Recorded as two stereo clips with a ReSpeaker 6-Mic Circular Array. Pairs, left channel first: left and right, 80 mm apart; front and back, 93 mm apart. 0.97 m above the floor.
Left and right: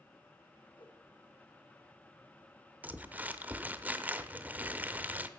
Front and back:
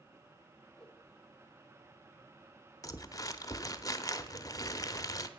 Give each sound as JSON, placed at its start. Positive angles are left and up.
{"t": 0.8, "sound": "a whoosh", "azimuth_deg": 85, "distance_m": 1.8}
{"t": 2.8, "sound": "crumpling", "azimuth_deg": -25, "distance_m": 0.6}